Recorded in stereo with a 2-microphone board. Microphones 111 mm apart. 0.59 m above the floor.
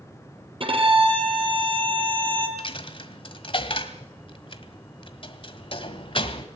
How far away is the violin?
About 4.5 m.